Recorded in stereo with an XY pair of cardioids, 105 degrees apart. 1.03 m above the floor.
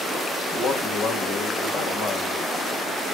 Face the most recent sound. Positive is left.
turn(degrees=65)